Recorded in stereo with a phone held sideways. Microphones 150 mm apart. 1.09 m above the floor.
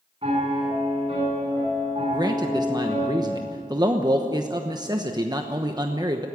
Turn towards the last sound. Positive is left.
turn(degrees=-30)  # may be behind; listen again after turning